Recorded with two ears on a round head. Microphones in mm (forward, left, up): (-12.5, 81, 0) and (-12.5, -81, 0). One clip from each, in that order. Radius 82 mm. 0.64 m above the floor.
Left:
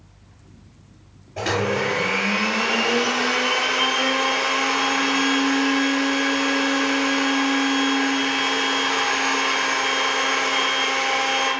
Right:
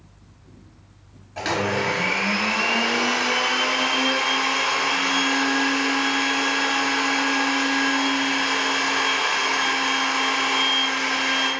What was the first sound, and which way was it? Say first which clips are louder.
A blender: left 1 dB; 75° right (ahead or behind).